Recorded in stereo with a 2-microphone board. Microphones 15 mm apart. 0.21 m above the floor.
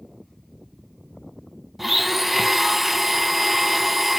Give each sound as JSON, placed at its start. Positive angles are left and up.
{"t": 1.8, "sound": "a blender", "side_deg": 0, "distance_m": 0.6}